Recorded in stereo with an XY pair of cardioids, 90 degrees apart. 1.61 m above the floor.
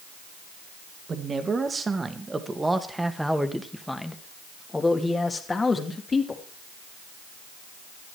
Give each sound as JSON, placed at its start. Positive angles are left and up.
{"t": 1.1, "sound": "a man speaking", "azimuth_deg": -45, "distance_m": 2.0}